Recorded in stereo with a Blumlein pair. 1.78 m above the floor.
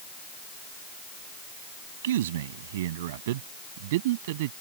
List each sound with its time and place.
2.0 s a man speaking: 60° right; by 4.5 s 50° right